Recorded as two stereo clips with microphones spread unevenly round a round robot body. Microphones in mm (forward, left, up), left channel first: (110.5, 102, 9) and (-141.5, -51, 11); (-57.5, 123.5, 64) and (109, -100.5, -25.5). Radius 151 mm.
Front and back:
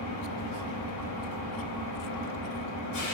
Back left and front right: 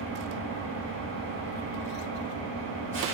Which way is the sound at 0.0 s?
5° right.